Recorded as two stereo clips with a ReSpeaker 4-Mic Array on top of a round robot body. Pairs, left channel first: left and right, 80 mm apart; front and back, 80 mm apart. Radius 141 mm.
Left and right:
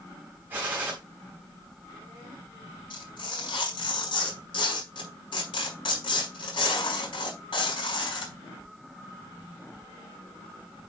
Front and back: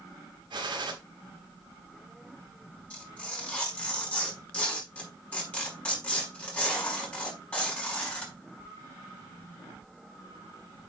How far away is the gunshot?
About 3 m.